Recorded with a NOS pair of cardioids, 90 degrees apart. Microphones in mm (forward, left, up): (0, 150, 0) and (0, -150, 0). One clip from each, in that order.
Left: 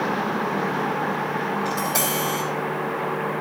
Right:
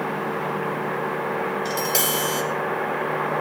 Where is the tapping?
55° right, 5.5 m.